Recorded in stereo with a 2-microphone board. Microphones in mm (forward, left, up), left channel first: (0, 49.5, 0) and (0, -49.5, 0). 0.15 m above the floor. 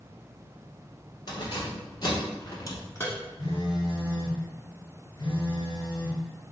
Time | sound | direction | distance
1.3 | keys jangling | 45° left (ahead or behind) | 1.5 m
3.4 | a phone buzzing | 40° left (ahead or behind) | 1.8 m